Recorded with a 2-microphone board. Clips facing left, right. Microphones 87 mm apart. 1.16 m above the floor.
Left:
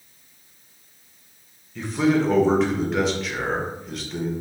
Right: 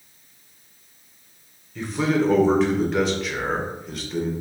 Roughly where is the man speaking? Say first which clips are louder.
Left 2 dB; centre.